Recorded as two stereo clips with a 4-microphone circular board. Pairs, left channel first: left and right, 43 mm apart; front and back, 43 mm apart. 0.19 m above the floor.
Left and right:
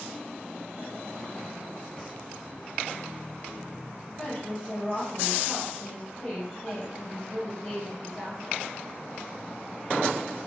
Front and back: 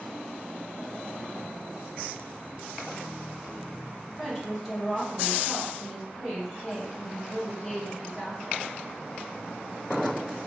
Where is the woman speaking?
120° left, 1.0 m.